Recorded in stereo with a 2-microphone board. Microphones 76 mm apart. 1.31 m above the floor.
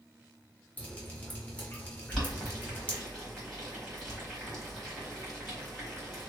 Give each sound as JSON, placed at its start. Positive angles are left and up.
{"t": 0.8, "sound": "dripping", "side_deg": 20, "distance_m": 1.0}
{"t": 2.1, "sound": "boiling", "side_deg": 5, "distance_m": 1.8}